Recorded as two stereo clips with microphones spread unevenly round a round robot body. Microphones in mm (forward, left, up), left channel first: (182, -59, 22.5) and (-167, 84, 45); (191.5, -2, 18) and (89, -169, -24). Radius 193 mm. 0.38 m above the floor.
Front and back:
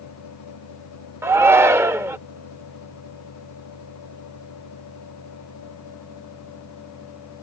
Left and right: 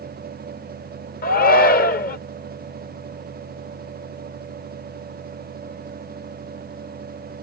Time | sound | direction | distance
1.2 | a shout | 75° left | ?